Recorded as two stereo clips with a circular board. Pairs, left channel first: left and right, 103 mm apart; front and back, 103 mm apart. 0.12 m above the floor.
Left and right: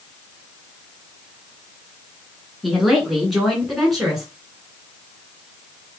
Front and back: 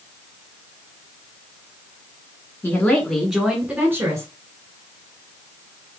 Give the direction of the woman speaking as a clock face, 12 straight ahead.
12 o'clock.